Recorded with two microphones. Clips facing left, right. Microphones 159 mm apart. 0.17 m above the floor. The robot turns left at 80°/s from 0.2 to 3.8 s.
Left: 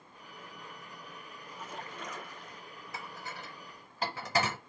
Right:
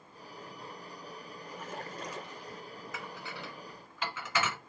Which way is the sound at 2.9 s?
35° left (ahead or behind).